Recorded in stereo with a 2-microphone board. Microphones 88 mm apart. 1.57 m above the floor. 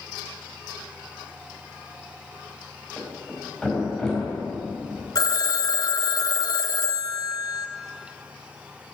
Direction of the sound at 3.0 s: 5° left (ahead or behind).